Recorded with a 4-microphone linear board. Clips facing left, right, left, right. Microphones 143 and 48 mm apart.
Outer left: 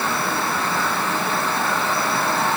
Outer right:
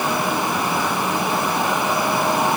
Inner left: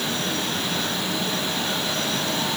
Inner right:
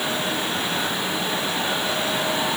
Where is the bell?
I don't hear a bell.